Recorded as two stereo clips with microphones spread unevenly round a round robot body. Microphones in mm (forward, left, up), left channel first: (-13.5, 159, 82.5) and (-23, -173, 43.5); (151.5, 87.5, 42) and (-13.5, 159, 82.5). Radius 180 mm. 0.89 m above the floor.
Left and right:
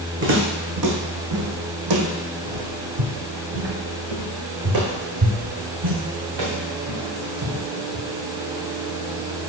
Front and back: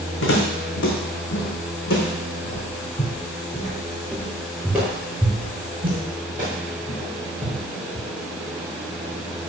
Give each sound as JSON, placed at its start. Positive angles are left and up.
{"t": 0.2, "sound": "footsteps", "azimuth_deg": -30, "distance_m": 2.5}